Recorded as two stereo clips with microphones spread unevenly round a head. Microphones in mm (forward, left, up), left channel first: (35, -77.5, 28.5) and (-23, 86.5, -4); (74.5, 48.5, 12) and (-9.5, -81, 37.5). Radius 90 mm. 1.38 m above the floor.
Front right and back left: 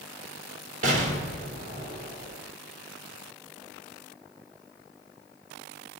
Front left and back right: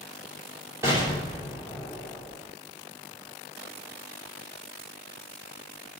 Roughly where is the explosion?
Behind.